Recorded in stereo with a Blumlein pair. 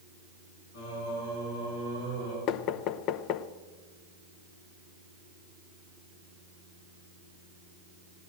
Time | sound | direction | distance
0.7 | singing | 65° left | 9 m
2.5 | knocking | 40° left | 0.8 m